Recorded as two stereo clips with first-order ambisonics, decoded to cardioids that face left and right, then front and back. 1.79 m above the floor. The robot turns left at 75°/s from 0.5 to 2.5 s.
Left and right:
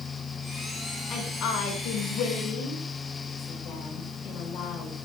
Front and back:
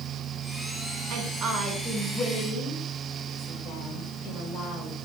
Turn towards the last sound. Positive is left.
turn(degrees=50)